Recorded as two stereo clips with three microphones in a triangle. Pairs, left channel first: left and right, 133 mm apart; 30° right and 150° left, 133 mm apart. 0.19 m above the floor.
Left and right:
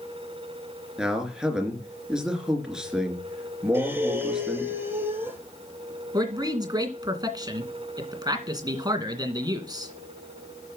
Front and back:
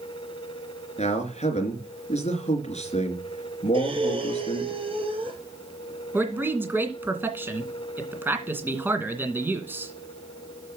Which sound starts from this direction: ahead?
A man speaking, at 1.0 s.